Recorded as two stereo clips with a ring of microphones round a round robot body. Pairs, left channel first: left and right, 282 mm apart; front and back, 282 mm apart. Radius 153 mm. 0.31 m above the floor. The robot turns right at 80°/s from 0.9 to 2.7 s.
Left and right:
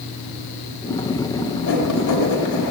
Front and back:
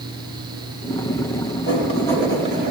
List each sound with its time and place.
1.7 s writing: 45° left, 9 m; by 2.7 s 130° left, 9 m